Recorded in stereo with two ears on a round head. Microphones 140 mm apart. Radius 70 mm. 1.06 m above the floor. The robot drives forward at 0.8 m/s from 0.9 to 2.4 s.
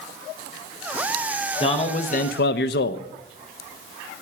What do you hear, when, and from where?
1.6 s a man speaking: 30° left (ahead or behind), 0.9 m; by 3.0 s 70° left (ahead or behind), 0.5 m